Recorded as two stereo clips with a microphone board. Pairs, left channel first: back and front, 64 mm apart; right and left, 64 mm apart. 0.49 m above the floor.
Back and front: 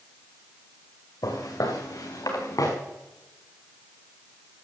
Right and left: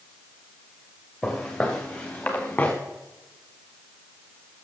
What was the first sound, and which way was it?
Footsteps, 175° right.